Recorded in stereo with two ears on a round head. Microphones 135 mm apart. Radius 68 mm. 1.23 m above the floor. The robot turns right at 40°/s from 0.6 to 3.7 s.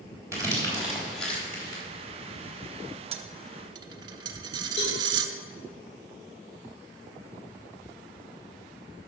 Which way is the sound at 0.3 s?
20° right (ahead or behind).